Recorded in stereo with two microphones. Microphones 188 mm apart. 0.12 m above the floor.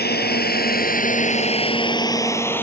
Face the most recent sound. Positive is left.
turn(degrees=10)  # may be behind; listen again after turning